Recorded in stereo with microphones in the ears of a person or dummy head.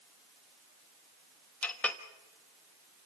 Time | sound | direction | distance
1.6 | a clink | 5° left (ahead or behind) | 1.5 m